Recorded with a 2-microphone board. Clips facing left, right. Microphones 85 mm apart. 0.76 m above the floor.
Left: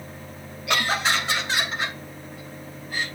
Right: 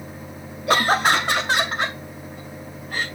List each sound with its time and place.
0.7 s laughter: 35° right (ahead or behind), 0.6 m; by 3.0 s 65° right (ahead or behind), 2 m